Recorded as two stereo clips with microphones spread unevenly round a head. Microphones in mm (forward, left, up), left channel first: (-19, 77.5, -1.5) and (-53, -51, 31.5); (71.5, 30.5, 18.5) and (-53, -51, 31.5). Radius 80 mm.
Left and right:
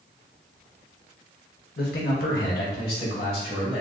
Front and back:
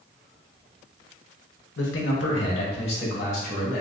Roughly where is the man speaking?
Ahead left.